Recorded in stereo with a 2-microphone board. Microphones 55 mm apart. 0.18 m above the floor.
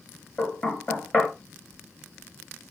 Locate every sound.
0.4 s knocking: 20° left (ahead or behind), 2 m